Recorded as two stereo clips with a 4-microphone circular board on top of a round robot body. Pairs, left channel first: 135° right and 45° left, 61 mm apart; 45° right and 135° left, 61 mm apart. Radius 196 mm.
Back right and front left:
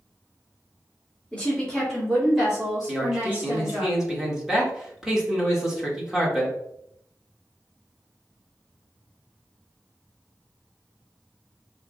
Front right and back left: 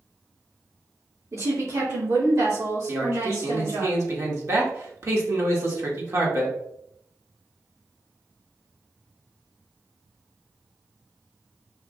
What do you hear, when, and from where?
1.3 s a woman speaking: 160° left, 2.5 m; by 3.9 s 115° left, 4 m
2.9 s a man speaking: 125° left, 1.8 m